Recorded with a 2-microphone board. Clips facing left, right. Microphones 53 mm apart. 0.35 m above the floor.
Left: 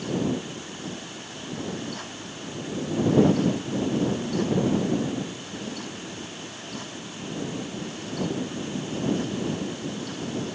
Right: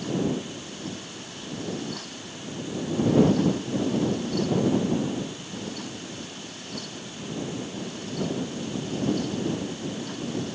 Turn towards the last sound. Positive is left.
No sound to turn to.